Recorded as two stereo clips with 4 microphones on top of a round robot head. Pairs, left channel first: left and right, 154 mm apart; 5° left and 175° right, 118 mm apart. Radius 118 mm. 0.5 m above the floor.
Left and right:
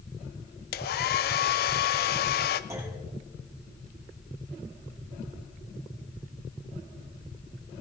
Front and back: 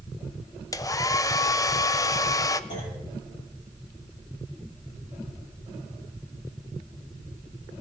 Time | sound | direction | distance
0.7 | a hair dryer | 70° left | 0.5 m
2.7 | a clunk | 20° right | 6 m